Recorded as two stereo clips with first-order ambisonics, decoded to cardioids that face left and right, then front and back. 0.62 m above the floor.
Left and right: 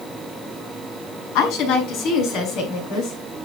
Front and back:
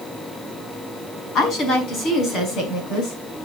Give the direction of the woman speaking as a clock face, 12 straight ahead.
10 o'clock.